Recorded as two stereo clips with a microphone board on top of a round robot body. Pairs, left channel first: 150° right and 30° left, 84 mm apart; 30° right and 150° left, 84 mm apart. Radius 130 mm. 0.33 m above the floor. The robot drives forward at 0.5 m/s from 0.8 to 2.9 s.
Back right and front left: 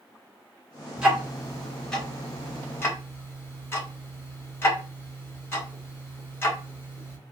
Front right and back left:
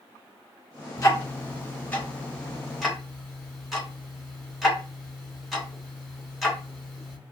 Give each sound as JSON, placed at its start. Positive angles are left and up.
{"t": 1.0, "sound": "ticking", "azimuth_deg": -45, "distance_m": 1.4}